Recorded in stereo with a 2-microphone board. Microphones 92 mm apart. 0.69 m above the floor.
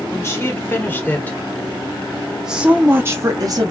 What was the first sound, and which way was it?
A woman speaking, 30° left (ahead or behind).